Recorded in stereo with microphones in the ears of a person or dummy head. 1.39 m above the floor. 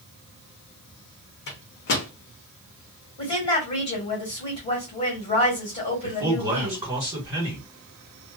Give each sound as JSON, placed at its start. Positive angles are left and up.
{"t": 1.5, "sound": "a microwave", "side_deg": 50, "distance_m": 0.7}
{"t": 3.2, "sound": "a woman speaking", "side_deg": 25, "distance_m": 1.4}
{"t": 6.0, "sound": "a man speaking", "side_deg": -20, "distance_m": 1.5}